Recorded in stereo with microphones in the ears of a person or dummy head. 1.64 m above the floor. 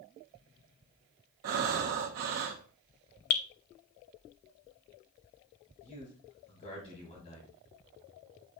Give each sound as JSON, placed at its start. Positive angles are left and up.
{"t": 1.4, "sound": "breathing", "side_deg": -45, "distance_m": 0.9}
{"t": 3.3, "sound": "dripping", "side_deg": 40, "distance_m": 0.5}
{"t": 5.8, "sound": "a man speaking", "side_deg": 35, "distance_m": 2.5}